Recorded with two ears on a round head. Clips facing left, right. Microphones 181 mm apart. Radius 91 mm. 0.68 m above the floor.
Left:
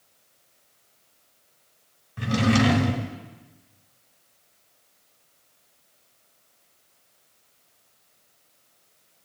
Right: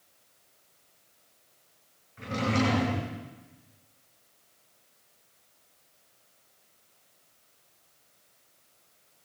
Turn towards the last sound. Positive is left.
turn(degrees=80)